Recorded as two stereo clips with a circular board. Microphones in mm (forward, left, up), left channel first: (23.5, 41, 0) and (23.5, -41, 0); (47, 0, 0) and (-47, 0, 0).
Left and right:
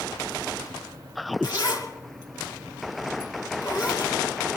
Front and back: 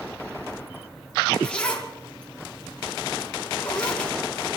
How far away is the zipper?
About 2.5 m.